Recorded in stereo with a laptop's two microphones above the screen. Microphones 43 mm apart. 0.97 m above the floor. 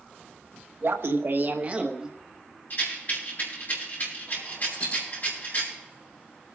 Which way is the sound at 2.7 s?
45° left (ahead or behind).